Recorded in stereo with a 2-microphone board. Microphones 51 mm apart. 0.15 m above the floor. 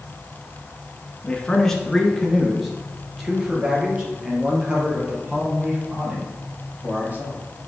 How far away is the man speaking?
About 1.7 m.